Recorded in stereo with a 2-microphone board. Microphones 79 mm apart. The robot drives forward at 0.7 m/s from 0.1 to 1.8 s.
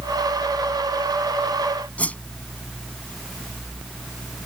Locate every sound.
2.0 s a whoosh: 20° left (ahead or behind)